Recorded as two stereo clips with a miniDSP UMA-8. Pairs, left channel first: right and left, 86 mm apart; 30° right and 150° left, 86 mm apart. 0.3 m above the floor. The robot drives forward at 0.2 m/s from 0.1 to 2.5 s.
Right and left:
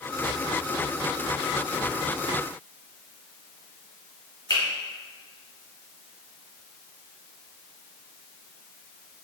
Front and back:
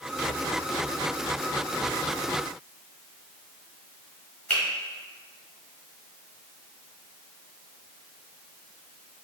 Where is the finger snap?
105° right, 1.3 m.